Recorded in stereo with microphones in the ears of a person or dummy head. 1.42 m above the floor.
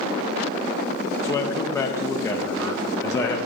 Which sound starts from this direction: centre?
A man speaking, at 1.2 s.